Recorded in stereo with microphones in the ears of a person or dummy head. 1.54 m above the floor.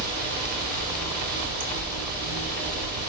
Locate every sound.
0.0 s running water: 50° right (ahead or behind), 4.5 m